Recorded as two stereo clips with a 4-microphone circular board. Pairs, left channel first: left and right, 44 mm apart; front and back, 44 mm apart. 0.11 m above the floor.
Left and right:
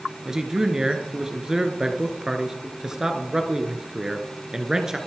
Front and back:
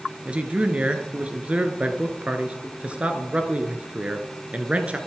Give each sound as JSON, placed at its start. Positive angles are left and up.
{"t": 0.2, "sound": "a man speaking", "azimuth_deg": -155, "distance_m": 1.6}